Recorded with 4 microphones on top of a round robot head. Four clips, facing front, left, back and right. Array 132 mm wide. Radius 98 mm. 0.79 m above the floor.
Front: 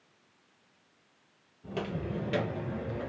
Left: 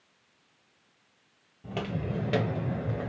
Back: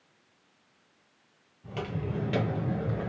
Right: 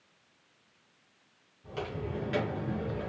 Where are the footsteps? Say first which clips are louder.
Left 3 dB, even; 60° left, 1.2 m; by 3.1 s 150° left, 1.0 m.